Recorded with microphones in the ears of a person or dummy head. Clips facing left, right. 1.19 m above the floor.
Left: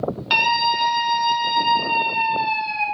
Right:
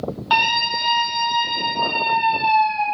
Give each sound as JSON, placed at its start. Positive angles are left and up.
{"t": 0.3, "sound": "a scream", "side_deg": 25, "distance_m": 0.7}